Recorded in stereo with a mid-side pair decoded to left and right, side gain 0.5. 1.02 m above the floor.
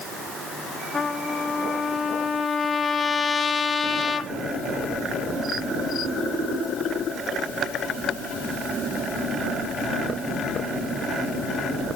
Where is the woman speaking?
I don't hear a woman speaking.